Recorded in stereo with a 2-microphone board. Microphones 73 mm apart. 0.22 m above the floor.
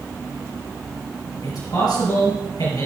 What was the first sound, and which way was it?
A man speaking, 70° left (ahead or behind).